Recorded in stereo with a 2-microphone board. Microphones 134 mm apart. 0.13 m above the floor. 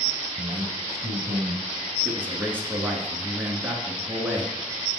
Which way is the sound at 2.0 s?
15° right (ahead or behind).